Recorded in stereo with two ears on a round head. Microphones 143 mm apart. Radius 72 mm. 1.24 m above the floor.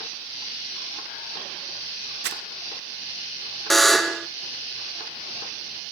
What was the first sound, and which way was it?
Crumpling, 80° right.